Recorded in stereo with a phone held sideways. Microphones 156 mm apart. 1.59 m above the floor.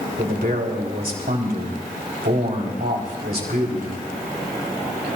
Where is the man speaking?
85° right, 4 m.